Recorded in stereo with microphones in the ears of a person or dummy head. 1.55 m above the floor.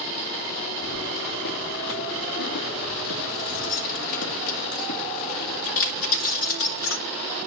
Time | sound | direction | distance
0.8 | keys jangling | 65° left (ahead or behind) | 3 m